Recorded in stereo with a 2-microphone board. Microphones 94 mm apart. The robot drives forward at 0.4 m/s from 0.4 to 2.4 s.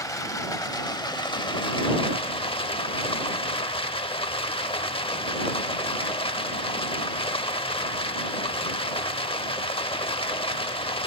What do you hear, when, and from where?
0.0 s running water: 40° left (ahead or behind), 1.1 m; by 11.1 s 75° left (ahead or behind), 0.7 m